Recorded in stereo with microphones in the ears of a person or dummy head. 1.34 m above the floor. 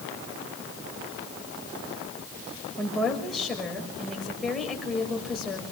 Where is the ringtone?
No ringtone in this recording.